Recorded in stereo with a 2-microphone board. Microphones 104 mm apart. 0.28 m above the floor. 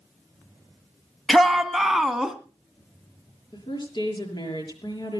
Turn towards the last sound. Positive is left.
turn(degrees=50)  # may be behind; listen again after turning